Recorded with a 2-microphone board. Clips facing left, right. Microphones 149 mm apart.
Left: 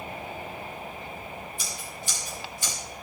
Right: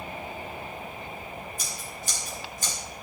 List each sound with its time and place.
1.6 s scissors: 40° right (ahead or behind), 8 m